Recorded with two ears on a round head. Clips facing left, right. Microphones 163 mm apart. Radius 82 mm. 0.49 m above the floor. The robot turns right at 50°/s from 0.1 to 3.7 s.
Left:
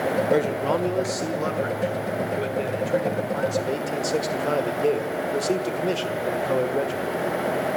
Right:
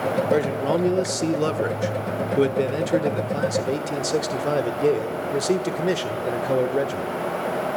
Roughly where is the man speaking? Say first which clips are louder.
Right 1 dB; behind.